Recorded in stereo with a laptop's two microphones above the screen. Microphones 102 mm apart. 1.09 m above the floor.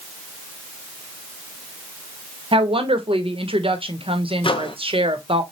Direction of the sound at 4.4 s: 60° left (ahead or behind).